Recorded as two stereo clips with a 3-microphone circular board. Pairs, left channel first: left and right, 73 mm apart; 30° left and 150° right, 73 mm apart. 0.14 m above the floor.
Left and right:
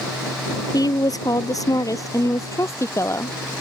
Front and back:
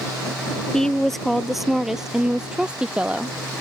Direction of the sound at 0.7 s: 110° left.